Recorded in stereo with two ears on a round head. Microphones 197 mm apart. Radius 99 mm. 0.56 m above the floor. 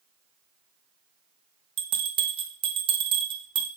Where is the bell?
25° right (ahead or behind), 0.6 m.